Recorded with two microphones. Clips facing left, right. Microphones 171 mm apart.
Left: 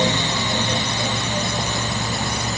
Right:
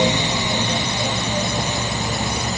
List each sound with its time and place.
Only background noise.